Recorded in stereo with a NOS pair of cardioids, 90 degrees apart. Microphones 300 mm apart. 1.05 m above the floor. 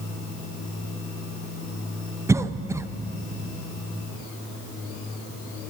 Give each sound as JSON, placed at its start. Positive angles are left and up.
{"t": 2.3, "sound": "a cough", "azimuth_deg": -10, "distance_m": 0.5}